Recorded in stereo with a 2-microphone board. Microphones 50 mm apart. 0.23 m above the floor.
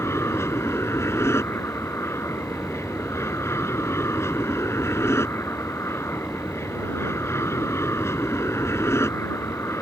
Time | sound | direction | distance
0.0 | an aircraft | 60° left (ahead or behind) | ?